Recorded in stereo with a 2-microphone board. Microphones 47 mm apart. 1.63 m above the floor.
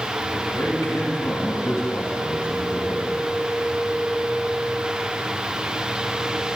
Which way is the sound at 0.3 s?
85° left.